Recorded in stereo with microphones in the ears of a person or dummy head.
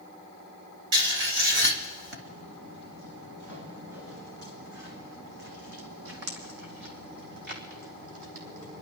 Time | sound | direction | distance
0.9 | writing | 65° right (ahead or behind) | 2.5 m
2.2 | footsteps | 75° right (ahead or behind) | 4.5 m